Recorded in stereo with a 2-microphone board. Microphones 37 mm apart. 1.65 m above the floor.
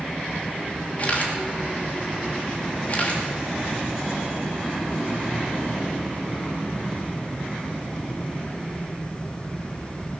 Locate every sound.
1.0 s a camera shutter: 40° left (ahead or behind), 2.5 m